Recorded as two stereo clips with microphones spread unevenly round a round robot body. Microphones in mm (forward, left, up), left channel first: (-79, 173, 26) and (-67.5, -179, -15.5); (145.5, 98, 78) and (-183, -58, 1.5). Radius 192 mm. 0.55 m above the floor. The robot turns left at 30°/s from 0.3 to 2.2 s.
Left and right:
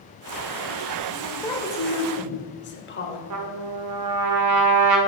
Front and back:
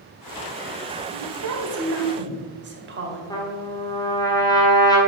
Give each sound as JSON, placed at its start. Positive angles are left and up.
{"t": 1.1, "sound": "a woman speaking", "azimuth_deg": -175, "distance_m": 2.5}
{"t": 3.3, "sound": "a trumpet", "azimuth_deg": -60, "distance_m": 1.3}